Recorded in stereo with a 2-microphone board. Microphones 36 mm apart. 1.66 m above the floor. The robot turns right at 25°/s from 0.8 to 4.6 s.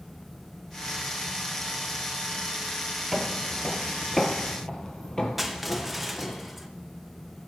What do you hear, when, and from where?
3.1 s footsteps: 5° right (ahead or behind), 1.7 m; by 6.4 s 25° left (ahead or behind), 3 m
5.4 s crushing: 5° right (ahead or behind), 0.8 m